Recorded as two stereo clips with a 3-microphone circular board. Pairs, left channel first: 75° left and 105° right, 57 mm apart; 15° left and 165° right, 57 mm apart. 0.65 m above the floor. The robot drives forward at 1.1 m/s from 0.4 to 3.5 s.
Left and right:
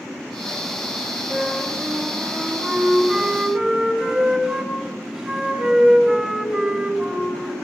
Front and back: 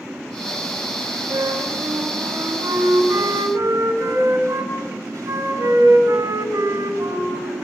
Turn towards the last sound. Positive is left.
turn(degrees=180)